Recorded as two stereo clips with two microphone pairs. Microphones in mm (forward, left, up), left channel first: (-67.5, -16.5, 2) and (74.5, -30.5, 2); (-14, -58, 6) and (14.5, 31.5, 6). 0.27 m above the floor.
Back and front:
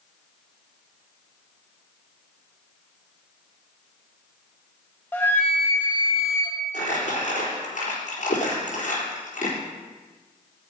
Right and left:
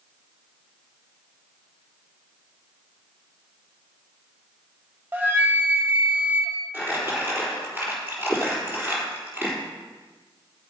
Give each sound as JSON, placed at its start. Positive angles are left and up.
{"t": 5.1, "sound": "a flute", "azimuth_deg": 115, "distance_m": 1.3}
{"t": 6.7, "sound": "crumpling", "azimuth_deg": 145, "distance_m": 3.5}